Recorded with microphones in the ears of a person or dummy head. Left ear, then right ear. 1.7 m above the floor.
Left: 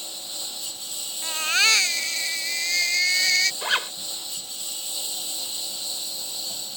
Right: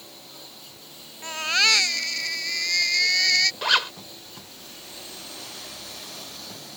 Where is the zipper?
20° right (ahead or behind).